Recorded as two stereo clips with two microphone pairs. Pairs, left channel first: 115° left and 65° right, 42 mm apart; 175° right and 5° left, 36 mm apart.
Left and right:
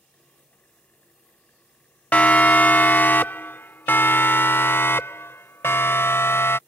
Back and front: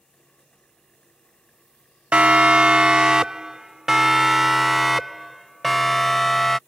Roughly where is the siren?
Ahead left.